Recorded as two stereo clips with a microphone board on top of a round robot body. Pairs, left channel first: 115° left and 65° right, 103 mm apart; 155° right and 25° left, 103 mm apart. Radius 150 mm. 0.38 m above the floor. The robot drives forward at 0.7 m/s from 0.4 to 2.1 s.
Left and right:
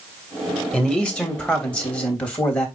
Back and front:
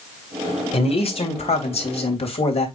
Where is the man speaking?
165° right, 3 m; by 2.7 s 170° right, 3.5 m.